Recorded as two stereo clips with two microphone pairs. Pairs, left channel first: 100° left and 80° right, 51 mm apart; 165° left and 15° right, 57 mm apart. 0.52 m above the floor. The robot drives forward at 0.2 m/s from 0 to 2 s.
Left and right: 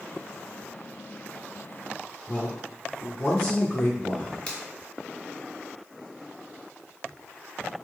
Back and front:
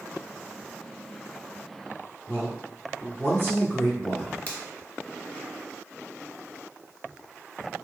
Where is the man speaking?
140° left, 0.9 m.